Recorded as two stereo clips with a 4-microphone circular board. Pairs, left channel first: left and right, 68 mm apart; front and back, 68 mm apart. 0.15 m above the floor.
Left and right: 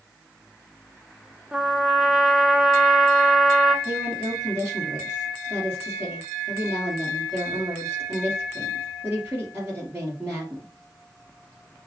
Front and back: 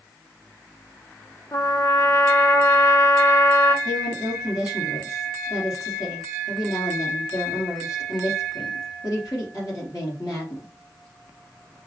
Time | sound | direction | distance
1.5 | a trumpet | 20° right | 0.7 m
3.9 | a woman speaking | 35° right | 2.5 m